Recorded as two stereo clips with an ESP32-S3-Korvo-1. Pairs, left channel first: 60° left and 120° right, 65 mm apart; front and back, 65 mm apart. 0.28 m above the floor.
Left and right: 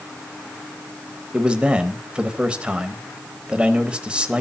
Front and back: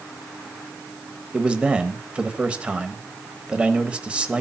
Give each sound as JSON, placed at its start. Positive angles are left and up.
{"t": 1.3, "sound": "a man speaking", "azimuth_deg": -150, "distance_m": 1.2}